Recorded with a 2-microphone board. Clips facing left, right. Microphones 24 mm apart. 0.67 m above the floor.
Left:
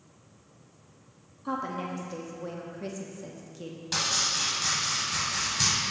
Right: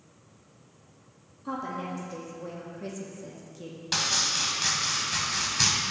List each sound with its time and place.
1.4 s a woman speaking: 15° left (ahead or behind), 0.8 m
3.9 s chopping: 25° right (ahead or behind), 1.4 m